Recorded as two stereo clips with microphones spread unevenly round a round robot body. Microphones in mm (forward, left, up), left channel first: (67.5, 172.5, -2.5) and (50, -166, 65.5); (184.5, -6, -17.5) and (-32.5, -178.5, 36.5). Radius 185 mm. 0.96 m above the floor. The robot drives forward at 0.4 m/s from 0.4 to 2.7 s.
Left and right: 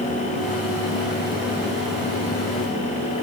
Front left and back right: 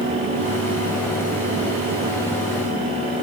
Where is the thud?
No thud in this recording.